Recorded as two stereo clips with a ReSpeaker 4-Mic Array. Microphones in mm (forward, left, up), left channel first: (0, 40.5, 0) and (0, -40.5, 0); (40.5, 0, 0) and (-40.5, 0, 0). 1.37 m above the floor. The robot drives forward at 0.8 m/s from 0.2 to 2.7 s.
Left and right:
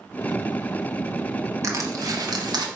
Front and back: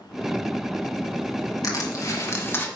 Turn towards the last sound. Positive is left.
turn(degrees=-65)